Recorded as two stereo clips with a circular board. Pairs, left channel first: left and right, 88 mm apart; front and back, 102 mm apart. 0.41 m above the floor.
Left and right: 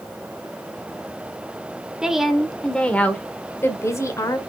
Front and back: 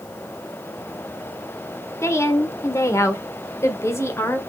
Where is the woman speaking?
15° right, 1.4 m; by 4.4 s 55° left, 1.9 m.